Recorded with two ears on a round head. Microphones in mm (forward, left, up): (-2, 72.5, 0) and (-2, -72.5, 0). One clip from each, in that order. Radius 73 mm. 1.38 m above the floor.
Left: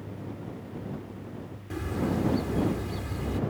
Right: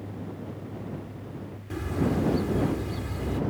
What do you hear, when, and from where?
1.7 s a bird: 5° left (ahead or behind)